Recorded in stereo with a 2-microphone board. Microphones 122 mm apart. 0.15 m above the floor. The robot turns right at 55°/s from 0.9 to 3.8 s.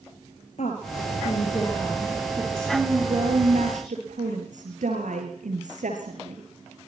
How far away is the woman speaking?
About 9 m.